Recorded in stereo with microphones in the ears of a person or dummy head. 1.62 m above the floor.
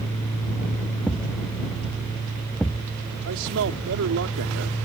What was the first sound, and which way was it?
A thud, 5° left (ahead or behind).